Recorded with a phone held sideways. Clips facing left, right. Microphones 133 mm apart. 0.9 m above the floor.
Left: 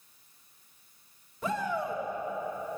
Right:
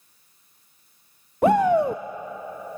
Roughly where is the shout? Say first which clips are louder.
Right 14 dB; right.